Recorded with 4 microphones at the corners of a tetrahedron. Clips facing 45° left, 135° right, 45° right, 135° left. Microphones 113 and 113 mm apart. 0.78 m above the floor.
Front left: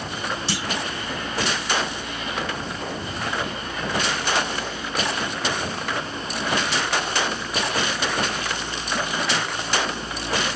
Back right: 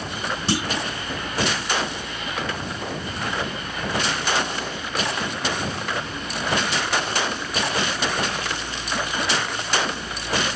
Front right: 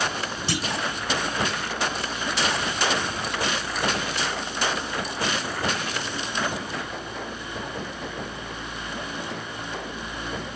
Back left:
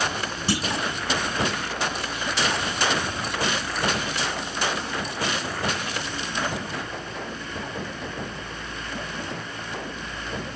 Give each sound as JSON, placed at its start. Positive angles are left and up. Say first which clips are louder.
{"t": 0.5, "sound": "a clunk", "louder": "back right 3 dB, back left 3 dB", "azimuth_deg": 180, "distance_m": 3.5}